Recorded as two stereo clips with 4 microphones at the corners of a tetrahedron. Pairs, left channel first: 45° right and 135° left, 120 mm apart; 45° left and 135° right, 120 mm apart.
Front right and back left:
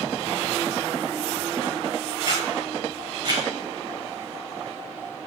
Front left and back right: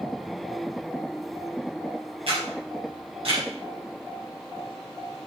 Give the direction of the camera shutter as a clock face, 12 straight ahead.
6 o'clock.